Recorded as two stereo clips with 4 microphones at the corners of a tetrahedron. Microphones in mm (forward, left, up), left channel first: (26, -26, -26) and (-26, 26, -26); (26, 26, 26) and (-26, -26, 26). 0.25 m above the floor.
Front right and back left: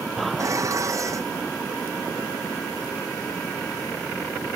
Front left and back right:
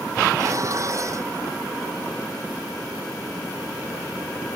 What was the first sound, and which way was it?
Dishes clattering, straight behind.